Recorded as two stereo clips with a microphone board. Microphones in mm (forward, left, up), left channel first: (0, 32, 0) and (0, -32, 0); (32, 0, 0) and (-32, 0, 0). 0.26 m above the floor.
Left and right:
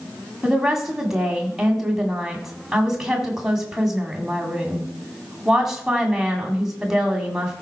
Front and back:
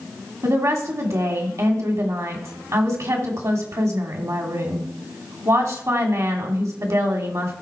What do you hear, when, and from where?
0.4 s a woman speaking: 170° right, 1.8 m